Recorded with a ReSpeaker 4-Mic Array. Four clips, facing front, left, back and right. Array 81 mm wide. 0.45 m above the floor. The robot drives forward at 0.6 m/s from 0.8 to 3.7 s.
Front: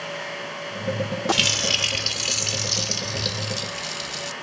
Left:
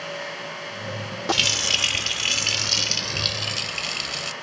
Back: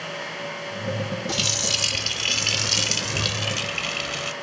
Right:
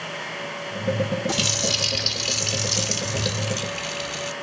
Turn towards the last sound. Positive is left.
turn(degrees=165)